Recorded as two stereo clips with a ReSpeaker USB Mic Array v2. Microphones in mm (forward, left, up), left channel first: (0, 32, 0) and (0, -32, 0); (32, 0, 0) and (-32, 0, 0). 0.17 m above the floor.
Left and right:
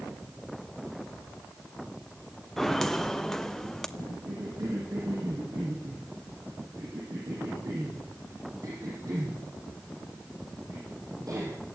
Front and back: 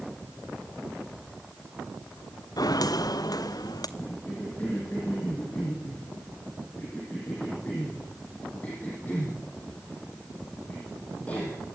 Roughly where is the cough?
Ahead right.